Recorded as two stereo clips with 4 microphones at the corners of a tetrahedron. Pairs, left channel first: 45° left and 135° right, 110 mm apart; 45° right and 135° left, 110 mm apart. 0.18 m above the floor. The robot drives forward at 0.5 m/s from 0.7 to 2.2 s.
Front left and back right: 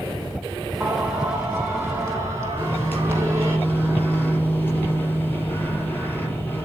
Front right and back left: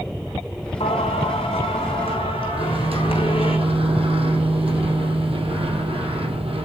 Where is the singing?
60° right, 3.5 m; by 3.6 s 70° right, 3.5 m.